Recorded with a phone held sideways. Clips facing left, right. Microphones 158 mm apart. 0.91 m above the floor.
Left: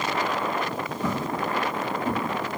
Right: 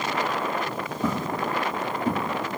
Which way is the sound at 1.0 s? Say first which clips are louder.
Right 1 dB; 40° right (ahead or behind).